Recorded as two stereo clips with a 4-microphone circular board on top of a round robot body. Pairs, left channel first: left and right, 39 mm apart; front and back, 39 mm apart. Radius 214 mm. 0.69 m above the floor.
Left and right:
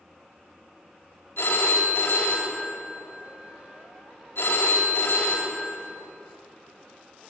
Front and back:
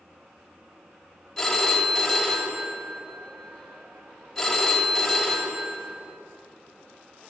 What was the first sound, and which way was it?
A phone ringing, 85° left.